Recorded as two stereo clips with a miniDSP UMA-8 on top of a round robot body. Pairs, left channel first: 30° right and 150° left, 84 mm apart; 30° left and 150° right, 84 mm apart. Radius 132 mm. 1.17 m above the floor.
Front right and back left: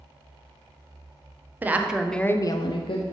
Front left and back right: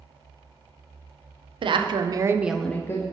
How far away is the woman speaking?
About 0.8 m.